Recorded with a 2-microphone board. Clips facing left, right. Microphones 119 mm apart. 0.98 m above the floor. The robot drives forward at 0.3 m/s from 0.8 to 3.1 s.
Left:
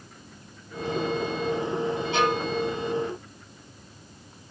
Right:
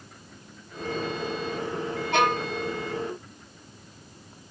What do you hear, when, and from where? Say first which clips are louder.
2.1 s a violin: right 2 dB; 55° right (ahead or behind), 1.3 m